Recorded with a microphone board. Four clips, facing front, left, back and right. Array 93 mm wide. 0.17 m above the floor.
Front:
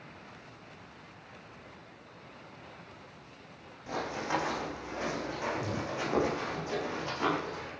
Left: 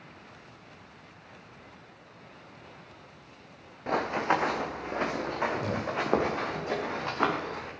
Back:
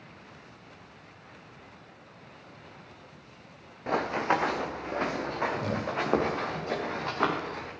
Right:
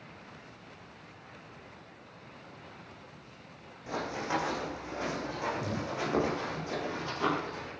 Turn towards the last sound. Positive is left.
turn(degrees=130)